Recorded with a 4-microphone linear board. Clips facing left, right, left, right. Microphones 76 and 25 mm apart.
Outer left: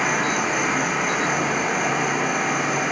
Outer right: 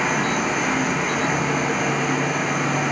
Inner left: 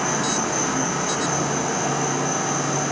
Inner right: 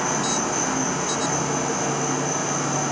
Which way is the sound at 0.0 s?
10° left (ahead or behind).